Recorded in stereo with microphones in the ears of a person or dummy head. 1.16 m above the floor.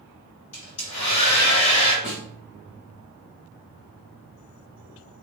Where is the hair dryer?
30° left (ahead or behind), 1.6 m.